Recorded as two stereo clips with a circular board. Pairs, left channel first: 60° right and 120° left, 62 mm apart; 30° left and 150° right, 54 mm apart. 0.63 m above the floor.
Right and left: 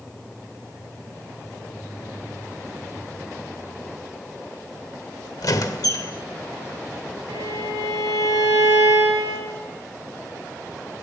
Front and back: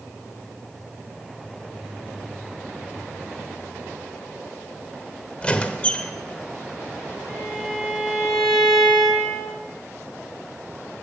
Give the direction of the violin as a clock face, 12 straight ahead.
8 o'clock.